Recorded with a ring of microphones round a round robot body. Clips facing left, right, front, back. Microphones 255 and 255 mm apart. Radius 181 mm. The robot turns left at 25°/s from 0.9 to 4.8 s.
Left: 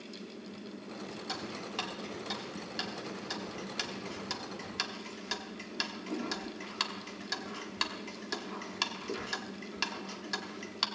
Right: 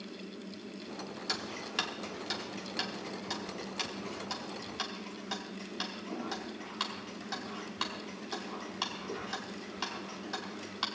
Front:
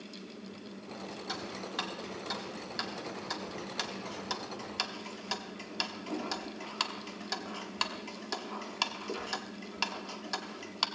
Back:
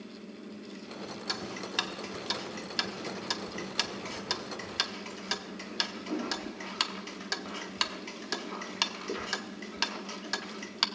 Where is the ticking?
140° right, 1.0 m; by 10.9 s 130° left, 1.0 m.